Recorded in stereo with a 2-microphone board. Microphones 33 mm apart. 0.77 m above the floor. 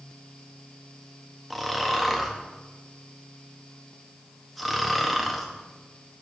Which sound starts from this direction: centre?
Snoring, at 1.5 s.